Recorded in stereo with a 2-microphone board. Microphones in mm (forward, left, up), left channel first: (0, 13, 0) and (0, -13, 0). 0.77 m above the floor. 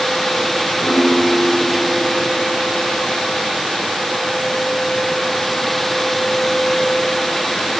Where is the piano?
80° left, 8 m.